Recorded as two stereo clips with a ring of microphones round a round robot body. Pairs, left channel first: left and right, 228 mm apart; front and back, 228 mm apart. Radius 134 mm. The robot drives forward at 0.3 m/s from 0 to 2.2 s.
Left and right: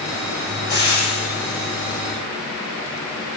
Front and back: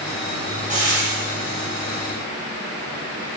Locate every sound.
0.7 s frying: 125° left, 1.9 m; by 2.0 s 135° left, 2 m